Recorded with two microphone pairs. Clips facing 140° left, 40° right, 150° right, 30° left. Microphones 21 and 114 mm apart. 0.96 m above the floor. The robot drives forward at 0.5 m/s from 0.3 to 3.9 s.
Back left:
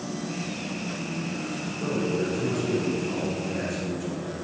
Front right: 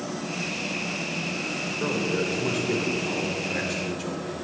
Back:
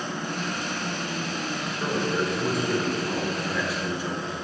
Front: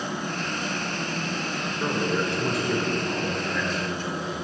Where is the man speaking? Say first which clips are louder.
Even, even; 50° right, 3 m; by 4.3 s 70° right, 2 m.